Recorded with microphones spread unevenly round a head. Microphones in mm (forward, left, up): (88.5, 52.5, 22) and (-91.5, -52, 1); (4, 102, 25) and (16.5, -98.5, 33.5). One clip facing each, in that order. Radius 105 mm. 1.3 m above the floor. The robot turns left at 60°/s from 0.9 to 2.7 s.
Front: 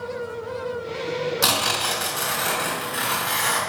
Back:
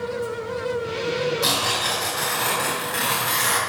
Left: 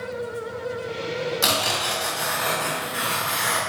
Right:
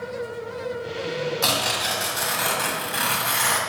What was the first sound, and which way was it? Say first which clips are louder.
Tearing paper: back 1 dB, left 1 dB; 20° left.